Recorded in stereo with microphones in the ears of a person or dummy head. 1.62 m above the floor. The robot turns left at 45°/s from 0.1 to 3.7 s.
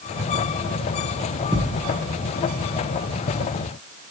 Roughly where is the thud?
Centre.